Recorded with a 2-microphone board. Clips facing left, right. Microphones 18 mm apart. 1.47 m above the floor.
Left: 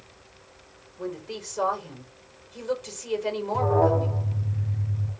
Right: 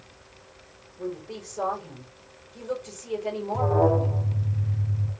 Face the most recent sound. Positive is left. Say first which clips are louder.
# even
turn(degrees=5)  # may be behind; listen again after turning